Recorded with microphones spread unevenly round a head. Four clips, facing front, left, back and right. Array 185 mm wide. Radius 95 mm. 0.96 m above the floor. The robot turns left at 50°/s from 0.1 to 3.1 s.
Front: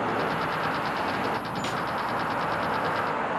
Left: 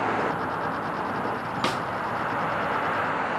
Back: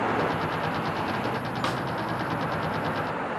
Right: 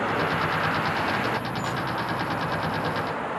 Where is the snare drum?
85° left, 0.8 m; by 1.8 s 75° left, 0.8 m.